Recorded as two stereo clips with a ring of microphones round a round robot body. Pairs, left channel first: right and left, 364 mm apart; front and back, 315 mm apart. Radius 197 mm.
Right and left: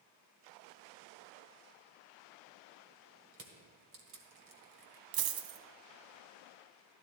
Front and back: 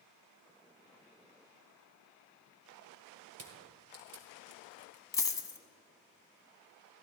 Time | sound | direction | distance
3.3 | crushing | 145° left | 1.7 m
5.1 | a dropped coin | 80° left | 1.0 m